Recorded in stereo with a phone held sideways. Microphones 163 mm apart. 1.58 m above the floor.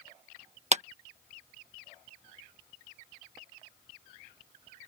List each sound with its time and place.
0.7 s a clap: 45° right (ahead or behind)